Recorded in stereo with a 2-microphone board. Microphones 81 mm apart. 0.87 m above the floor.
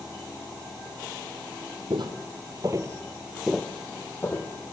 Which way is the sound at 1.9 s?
70° right (ahead or behind).